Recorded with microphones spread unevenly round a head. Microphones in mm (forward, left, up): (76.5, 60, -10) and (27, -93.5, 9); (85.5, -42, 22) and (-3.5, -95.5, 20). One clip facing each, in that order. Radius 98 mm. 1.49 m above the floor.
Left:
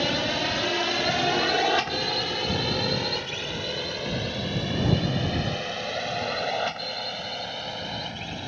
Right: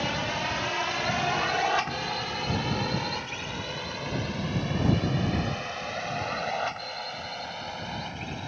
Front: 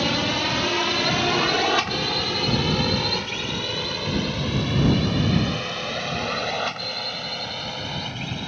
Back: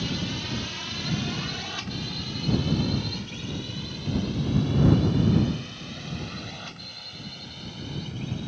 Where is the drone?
25° left; by 8.5 s 15° left.